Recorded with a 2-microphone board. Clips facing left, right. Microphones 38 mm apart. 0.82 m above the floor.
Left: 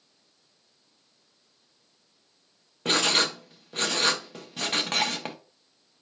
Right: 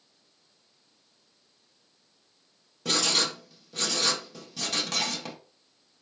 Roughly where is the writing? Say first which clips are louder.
Left 3 dB; left.